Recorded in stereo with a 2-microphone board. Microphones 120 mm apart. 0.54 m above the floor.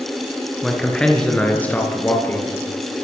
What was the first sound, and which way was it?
A man speaking, centre (ahead or behind).